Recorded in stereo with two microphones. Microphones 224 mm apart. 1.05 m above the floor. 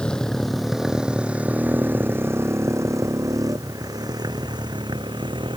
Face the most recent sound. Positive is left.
turn(degrees=-20)  # may be behind; listen again after turning